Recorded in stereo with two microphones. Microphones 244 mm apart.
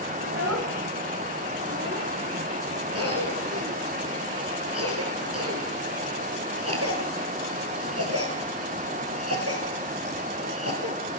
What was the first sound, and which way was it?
A child speaking, 85° right.